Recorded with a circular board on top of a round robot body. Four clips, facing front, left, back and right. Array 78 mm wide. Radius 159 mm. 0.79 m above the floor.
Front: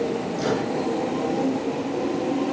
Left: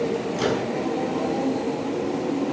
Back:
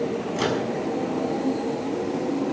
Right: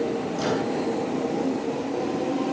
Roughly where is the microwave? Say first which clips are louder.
Left 1 dB, even; behind.